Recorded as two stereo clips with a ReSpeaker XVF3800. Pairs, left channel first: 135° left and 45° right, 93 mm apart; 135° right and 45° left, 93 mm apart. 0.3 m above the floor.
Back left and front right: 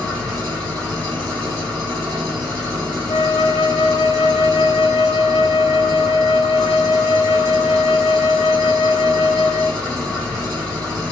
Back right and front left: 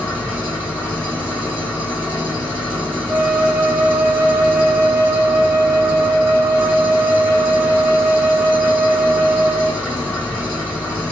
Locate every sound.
0.0 s an engine running: 75° right, 1.9 m
3.1 s a flute: 110° left, 0.5 m